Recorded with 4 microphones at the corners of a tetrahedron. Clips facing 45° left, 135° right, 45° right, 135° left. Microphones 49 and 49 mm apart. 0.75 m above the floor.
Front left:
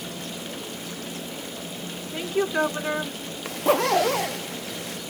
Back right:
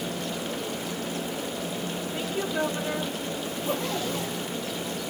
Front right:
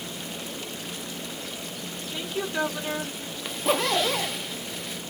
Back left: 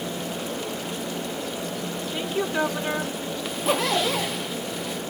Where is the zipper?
45° left, 0.5 m.